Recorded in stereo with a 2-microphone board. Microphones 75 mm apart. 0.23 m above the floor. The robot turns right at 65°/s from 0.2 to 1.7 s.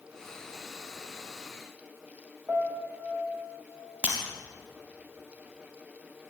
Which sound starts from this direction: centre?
Breaking glass, at 4.0 s.